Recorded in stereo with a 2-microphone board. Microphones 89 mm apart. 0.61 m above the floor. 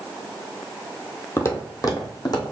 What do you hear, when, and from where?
1.4 s footsteps: 30° left (ahead or behind), 1.2 m; by 2.5 s 50° left (ahead or behind), 1.8 m